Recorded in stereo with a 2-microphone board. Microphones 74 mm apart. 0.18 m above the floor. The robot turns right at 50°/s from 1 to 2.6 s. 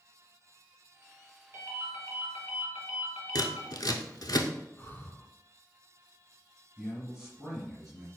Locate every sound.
1.5 s a ringtone: 85° right, 1.6 m; by 3.7 s 30° right, 1.6 m
3.4 s scissors: 70° left (ahead or behind), 0.5 m
4.8 s breathing: 30° left (ahead or behind), 0.6 m
6.8 s a man speaking: centre (ahead or behind), 1.4 m